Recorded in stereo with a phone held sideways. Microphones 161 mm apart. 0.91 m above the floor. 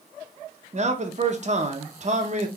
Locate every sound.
0.7 s a man speaking: 45° right (ahead or behind), 0.7 m